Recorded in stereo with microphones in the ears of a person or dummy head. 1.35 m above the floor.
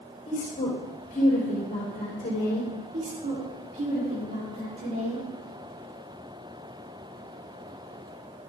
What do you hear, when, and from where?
0.3 s a woman speaking: 30° left (ahead or behind), 4 m
2.9 s a woman speaking: 40° right (ahead or behind), 4 m